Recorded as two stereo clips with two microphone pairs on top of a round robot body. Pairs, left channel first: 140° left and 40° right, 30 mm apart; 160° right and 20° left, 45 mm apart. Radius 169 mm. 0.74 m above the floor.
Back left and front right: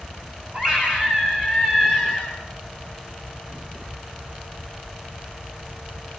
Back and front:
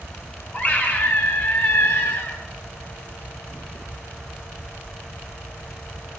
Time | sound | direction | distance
0.5 | a scream | 100° right | 8 m